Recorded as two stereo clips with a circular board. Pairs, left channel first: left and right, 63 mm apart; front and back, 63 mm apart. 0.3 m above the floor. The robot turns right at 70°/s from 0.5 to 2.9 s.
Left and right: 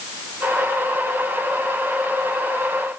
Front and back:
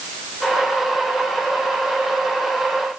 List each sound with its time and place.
Only background noise.